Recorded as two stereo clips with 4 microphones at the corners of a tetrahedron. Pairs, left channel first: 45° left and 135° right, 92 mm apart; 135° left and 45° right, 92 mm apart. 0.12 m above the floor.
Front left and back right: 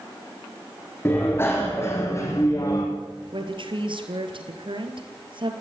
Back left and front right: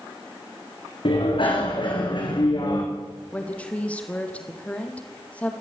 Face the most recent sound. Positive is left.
turn(degrees=-150)